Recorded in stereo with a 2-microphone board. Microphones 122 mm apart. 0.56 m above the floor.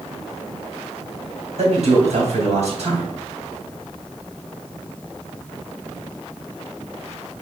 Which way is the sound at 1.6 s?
60° right (ahead or behind).